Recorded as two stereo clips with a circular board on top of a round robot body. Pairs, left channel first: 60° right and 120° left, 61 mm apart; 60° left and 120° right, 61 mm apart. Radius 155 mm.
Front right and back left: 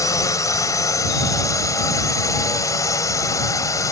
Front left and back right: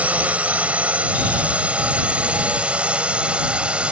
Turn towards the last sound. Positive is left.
turn(degrees=-50)